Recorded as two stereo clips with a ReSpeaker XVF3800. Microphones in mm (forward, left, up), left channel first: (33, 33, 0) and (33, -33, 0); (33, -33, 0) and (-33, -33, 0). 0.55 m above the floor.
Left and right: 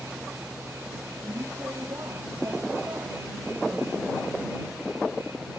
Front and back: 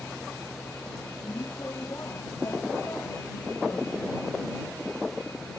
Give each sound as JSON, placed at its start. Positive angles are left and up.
{"t": 0.0, "sound": "a vehicle", "azimuth_deg": -45}